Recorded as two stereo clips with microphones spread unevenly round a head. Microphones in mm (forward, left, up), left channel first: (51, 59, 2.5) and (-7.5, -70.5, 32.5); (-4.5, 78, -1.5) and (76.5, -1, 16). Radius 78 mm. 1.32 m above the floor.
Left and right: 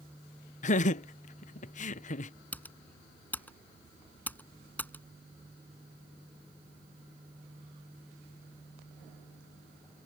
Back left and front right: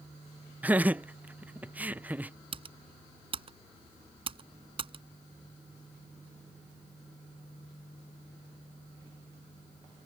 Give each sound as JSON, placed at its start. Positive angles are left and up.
{"t": 0.6, "sound": "laughter", "azimuth_deg": 30}
{"t": 2.5, "sound": "typing on a keyboard", "azimuth_deg": -15}